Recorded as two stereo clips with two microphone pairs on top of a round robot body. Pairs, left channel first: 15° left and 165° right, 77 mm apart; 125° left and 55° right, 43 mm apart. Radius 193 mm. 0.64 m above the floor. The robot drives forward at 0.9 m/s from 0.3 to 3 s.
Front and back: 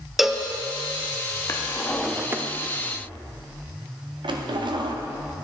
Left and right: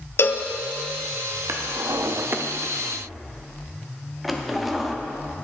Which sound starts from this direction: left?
A cowbell, at 0.2 s.